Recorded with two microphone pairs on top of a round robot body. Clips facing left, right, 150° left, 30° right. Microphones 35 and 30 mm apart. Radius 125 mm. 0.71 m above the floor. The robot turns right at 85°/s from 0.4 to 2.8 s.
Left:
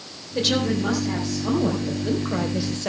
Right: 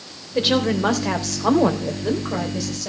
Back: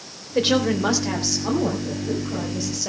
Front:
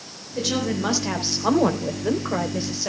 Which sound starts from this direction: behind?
A woman speaking, at 0.3 s.